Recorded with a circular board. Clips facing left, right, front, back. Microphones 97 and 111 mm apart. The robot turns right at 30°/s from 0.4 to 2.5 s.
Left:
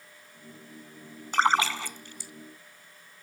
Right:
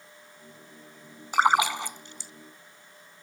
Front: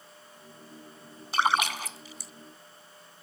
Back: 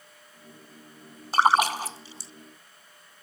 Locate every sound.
1.3 s a splash: 165° right; by 2.3 s 135° right